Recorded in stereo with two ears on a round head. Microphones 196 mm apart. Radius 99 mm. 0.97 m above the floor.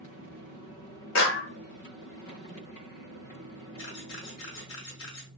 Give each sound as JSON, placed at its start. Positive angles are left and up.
{"t": 1.1, "sound": "a clap", "side_deg": 55, "distance_m": 0.7}
{"t": 3.8, "sound": "a camera shutter", "side_deg": 65, "distance_m": 1.3}